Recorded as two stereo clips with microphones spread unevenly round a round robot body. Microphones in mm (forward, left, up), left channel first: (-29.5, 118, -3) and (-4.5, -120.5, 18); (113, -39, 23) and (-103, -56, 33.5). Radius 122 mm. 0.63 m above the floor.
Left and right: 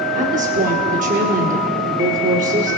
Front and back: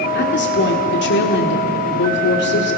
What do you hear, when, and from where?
0.1 s a woman speaking: 25° right, 1.7 m